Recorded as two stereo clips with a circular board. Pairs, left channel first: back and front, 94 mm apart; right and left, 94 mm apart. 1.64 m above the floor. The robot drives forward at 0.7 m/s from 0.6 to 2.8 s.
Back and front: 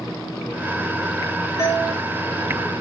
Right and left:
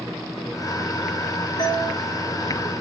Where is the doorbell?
135° right, 4.5 m; by 1.9 s 140° right, 4.5 m.